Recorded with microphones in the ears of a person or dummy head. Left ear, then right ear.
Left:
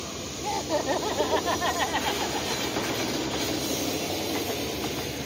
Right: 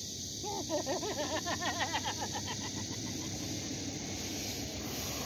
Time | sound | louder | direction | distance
0.4 | laughter | left 9 dB | 65° left (ahead or behind) | ?